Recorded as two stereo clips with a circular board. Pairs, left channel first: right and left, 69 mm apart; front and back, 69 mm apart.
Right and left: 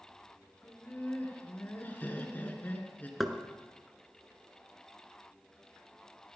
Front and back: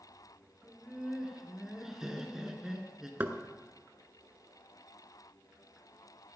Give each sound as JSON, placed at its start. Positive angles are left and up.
{"t": 0.6, "sound": "laughter", "azimuth_deg": -105, "distance_m": 1.9}
{"t": 3.2, "sound": "knocking", "azimuth_deg": 180, "distance_m": 1.0}